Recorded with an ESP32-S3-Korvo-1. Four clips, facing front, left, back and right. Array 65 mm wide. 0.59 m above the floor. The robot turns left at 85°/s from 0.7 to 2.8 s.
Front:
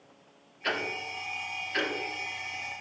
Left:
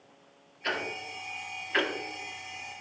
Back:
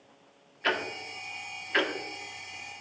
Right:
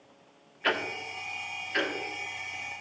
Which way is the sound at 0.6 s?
130° right.